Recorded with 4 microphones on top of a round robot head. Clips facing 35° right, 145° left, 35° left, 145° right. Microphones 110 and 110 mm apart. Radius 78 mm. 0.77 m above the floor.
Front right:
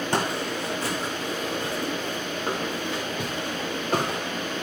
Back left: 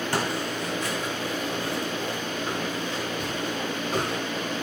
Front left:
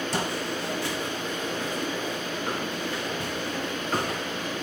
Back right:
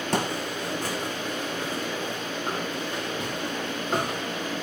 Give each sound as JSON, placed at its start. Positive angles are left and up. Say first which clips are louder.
{"t": 0.1, "sound": "footsteps", "louder": "front right 2 dB, back right 1 dB", "azimuth_deg": -105, "distance_m": 2.0}